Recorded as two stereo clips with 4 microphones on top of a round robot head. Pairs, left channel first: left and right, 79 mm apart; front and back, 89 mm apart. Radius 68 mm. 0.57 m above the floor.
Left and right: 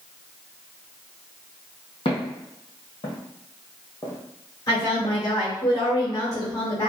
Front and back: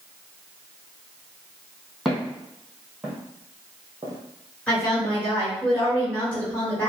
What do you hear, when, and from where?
2.0 s footsteps: 85° left, 1.6 m; by 5.2 s 175° left, 1.1 m
4.7 s a woman speaking: 65° left, 1.8 m